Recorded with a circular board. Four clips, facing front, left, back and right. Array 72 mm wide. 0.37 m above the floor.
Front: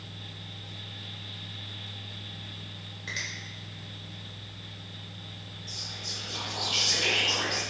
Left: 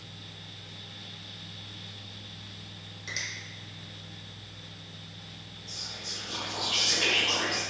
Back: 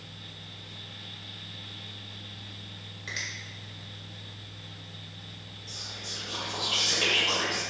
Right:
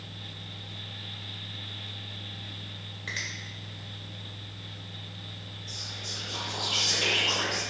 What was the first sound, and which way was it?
A finger snap, 90° right.